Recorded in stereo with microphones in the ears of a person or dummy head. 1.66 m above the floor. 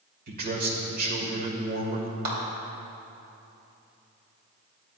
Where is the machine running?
I don't hear a machine running.